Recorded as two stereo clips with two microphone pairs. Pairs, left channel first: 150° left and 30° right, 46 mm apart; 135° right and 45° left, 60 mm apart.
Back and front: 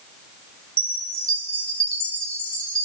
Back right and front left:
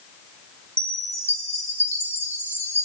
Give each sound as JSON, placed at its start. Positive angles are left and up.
{"t": 0.8, "sound": "a chime", "azimuth_deg": 85, "distance_m": 1.6}